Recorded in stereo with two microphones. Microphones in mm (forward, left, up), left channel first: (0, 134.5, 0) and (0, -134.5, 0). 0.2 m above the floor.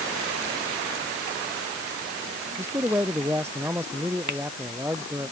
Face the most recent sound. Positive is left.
turn(degrees=-85)